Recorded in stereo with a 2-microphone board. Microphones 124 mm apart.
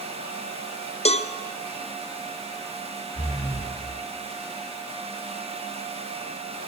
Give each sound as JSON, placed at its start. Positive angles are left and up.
{"t": 1.1, "sound": "a cowbell", "side_deg": 55, "distance_m": 0.6}
{"t": 3.1, "sound": "breathing", "side_deg": -70, "distance_m": 7.5}